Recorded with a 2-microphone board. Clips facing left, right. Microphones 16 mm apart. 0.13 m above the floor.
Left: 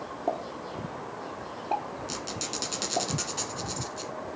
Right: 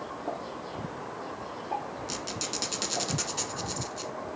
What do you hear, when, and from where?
0.3 s a pop: 70° left (ahead or behind), 1.4 m
2.1 s a squeak: 5° right (ahead or behind), 1.1 m